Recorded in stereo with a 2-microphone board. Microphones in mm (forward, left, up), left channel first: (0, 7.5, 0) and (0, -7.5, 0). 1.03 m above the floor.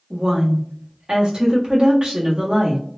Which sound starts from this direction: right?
A woman speaking, at 0.1 s.